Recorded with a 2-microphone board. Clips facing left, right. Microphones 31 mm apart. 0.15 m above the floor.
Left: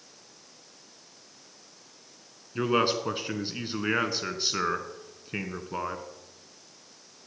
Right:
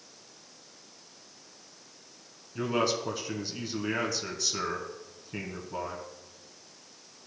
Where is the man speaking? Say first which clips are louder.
Left 3 dB; 35° left (ahead or behind), 1.4 m.